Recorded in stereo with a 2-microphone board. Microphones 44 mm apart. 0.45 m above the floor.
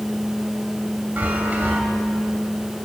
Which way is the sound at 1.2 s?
45° right (ahead or behind).